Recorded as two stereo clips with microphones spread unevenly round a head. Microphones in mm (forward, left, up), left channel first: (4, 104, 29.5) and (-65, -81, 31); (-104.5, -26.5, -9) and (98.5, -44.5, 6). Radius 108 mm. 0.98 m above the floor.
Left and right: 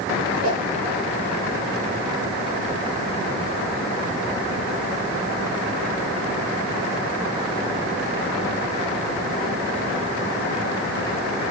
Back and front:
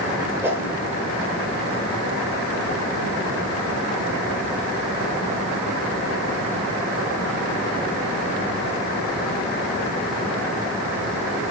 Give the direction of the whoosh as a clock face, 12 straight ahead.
3 o'clock.